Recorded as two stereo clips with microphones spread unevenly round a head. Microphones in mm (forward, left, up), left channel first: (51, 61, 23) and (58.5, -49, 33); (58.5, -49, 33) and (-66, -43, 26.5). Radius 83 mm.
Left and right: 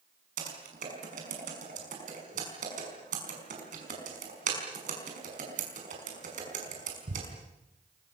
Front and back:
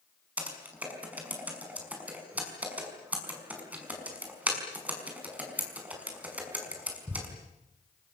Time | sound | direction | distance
0.4 | typing on a keyboard | 105° right | 5.5 m